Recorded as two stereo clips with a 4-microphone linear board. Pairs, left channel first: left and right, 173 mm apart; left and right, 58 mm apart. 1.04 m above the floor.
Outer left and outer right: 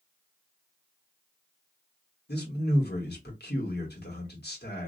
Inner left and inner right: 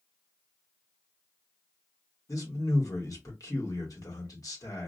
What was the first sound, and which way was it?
A man speaking, 70° left (ahead or behind).